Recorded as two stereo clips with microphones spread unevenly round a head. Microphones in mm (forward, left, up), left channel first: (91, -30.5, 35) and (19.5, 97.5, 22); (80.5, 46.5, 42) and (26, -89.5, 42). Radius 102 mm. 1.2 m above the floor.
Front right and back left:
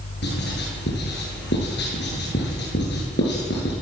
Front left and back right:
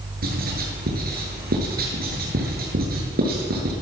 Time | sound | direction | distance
0.2 | writing | 95° right | 7.5 m